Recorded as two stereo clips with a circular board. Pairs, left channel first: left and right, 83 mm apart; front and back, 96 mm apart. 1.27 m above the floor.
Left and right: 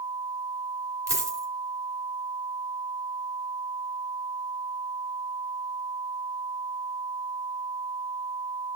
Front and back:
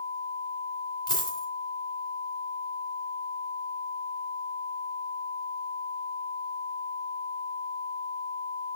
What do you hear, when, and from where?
1.1 s a dropped coin: 40° right, 2.5 m